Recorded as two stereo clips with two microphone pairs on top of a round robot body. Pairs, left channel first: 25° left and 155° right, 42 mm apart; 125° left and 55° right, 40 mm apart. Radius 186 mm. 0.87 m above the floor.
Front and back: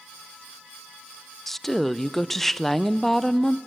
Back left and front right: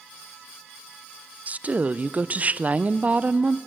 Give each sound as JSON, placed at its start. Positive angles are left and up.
{"t": 1.5, "sound": "a woman speaking", "azimuth_deg": -65, "distance_m": 0.7}